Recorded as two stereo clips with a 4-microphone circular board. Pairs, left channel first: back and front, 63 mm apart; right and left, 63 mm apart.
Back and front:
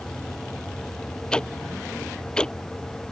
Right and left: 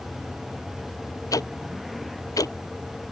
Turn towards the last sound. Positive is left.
turn(degrees=-105)